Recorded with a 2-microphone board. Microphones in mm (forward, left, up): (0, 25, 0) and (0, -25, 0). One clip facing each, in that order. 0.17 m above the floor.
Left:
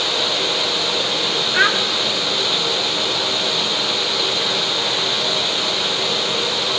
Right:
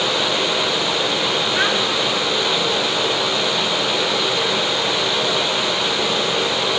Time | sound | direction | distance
1.5 | a child speaking | 25° left (ahead or behind) | 1.6 m